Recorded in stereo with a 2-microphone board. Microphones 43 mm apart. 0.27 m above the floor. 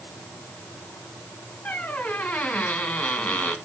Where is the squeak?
35° left (ahead or behind), 1.7 m.